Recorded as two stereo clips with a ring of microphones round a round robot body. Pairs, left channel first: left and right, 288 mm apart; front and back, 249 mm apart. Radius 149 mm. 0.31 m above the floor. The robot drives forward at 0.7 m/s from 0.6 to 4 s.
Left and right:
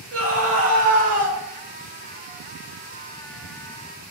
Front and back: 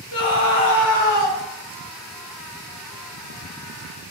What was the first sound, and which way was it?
A scream, 30° right.